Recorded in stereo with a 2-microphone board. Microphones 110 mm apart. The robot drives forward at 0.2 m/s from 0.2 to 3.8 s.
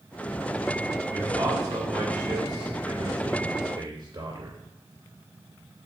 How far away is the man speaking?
About 2 m.